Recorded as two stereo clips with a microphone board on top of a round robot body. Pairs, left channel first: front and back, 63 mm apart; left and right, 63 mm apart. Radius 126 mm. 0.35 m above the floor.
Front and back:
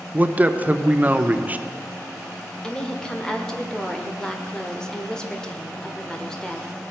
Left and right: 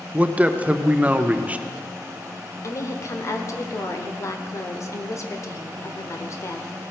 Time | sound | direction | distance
0.1 | a man speaking | 140° right | 0.9 m
2.6 | a woman speaking | 75° left | 1.5 m